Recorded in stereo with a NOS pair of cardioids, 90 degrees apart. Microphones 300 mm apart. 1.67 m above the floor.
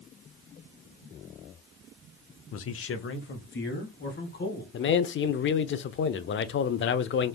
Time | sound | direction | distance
2.5 | a man speaking | 55° left | 0.5 m
4.7 | a man speaking | 40° left | 0.5 m